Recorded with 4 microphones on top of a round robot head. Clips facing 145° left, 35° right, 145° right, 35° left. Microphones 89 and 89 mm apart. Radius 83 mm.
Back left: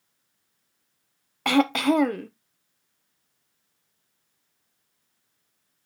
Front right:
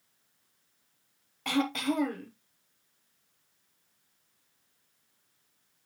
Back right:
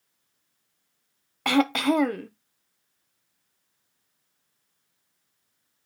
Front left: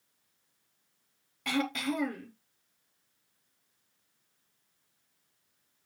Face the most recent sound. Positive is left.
turn(degrees=180)